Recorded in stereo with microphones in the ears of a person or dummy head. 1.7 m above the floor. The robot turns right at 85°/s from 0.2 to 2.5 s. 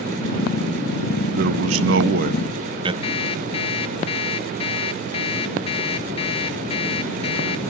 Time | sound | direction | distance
1.3 | a man speaking | 125° right | 1.6 m
3.0 | an alarm clock | 30° left (ahead or behind) | 1.5 m